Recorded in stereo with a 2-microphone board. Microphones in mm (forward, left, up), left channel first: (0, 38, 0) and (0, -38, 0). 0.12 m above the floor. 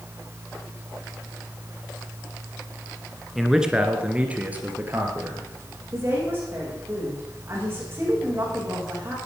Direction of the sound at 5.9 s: 30° right (ahead or behind).